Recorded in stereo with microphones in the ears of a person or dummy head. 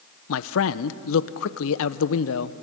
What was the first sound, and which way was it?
A man speaking, 70° left (ahead or behind).